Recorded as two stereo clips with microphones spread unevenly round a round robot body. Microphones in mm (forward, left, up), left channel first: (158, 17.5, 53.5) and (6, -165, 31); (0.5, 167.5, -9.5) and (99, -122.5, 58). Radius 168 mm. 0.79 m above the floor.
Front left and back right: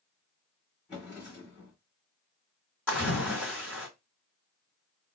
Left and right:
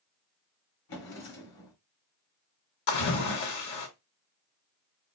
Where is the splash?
135° left, 1.9 m.